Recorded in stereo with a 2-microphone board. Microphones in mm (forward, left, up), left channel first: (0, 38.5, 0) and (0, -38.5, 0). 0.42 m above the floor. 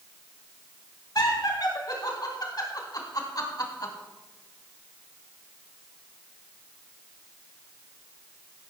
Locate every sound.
1.1 s laughter: 60° left (ahead or behind), 4.5 m